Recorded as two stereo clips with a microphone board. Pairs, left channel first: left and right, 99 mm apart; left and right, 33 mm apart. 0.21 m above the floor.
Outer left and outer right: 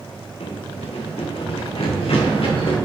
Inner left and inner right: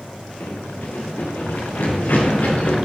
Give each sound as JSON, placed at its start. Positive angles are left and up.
{"t": 0.4, "sound": "running footsteps", "side_deg": 85, "distance_m": 2.0}